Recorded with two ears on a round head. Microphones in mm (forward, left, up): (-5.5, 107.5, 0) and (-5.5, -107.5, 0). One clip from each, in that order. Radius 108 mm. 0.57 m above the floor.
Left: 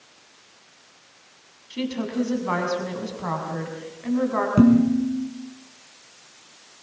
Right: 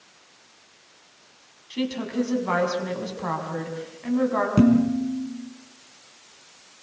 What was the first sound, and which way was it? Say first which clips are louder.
A woman speaking: even; 5° right (ahead or behind).